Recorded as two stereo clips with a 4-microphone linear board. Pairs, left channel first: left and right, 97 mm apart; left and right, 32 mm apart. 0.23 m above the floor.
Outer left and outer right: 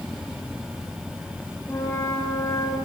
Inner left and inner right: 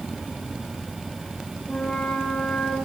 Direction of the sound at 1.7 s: 25° left (ahead or behind).